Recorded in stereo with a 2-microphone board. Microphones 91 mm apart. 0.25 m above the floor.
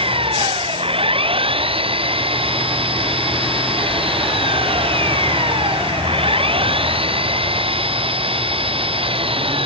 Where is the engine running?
75° right (ahead or behind).